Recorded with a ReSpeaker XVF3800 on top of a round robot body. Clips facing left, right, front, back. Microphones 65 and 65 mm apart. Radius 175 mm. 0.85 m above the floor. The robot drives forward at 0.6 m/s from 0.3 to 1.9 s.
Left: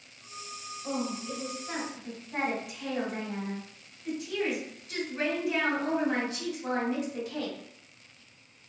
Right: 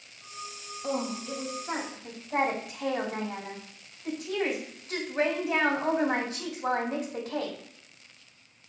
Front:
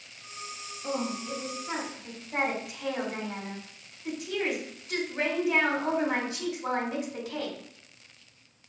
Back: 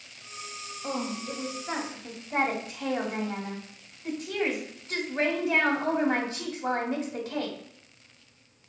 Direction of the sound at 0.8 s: 110° right.